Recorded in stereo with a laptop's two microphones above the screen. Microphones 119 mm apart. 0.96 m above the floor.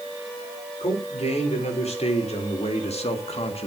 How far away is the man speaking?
About 4 m.